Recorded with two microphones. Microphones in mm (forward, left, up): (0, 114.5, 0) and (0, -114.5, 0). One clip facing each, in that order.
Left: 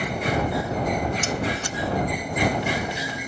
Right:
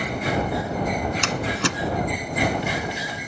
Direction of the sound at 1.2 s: 80° right.